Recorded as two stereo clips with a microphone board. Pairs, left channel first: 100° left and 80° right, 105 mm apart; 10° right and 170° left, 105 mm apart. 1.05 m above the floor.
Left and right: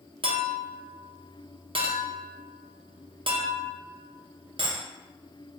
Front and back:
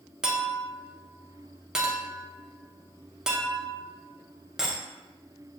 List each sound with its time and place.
0.2 s a clink: 105° right, 0.5 m